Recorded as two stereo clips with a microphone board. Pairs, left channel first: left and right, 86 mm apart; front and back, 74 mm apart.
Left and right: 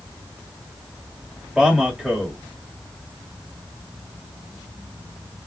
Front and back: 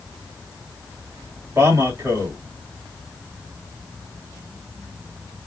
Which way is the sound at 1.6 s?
175° right.